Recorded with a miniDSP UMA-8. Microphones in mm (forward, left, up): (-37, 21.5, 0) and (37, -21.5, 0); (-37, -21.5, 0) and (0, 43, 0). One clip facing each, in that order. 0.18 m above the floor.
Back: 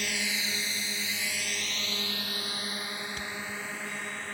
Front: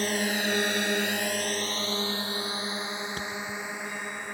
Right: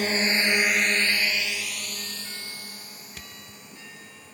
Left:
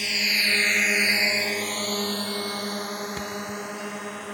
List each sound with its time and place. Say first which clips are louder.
0.0 s a drone: front 7 dB, right 3 dB; 75° right; by 4.3 s 45° left
3.2 s a thud: front 3 dB, left 14 dB; 15° left